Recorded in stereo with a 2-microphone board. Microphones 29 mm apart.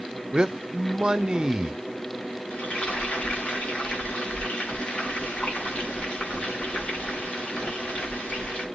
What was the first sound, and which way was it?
A man speaking, 30° right (ahead or behind).